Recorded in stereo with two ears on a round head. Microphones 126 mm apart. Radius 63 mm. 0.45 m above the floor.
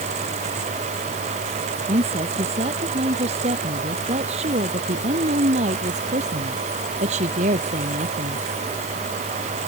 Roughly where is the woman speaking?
Right.